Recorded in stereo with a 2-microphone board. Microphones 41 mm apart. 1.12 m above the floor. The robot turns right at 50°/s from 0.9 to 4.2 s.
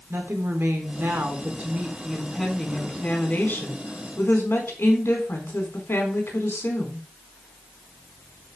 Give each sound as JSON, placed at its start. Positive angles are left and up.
{"t": 0.1, "sound": "a woman speaking", "azimuth_deg": -75, "distance_m": 4.5}